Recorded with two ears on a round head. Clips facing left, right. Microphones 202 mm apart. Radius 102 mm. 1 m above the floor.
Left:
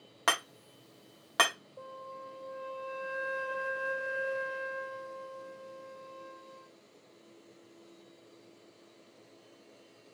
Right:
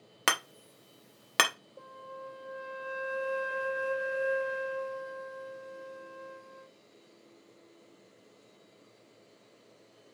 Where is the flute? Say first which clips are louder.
Even; 20° right (ahead or behind), 0.5 m.